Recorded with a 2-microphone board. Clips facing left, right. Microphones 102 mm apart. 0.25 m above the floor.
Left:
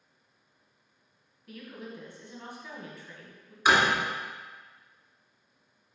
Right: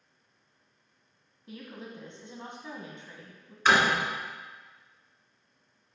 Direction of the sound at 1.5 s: 25° right (ahead or behind).